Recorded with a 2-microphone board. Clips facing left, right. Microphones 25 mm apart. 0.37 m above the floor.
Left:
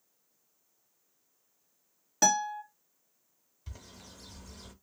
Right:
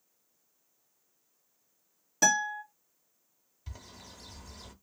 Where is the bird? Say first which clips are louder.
Right 1 dB; 5° right (ahead or behind), 0.8 m.